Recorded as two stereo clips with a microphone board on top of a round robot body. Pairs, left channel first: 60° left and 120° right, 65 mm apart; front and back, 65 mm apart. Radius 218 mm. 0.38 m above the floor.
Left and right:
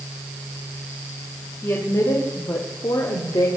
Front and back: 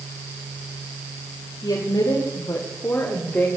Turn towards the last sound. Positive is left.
turn(degrees=70)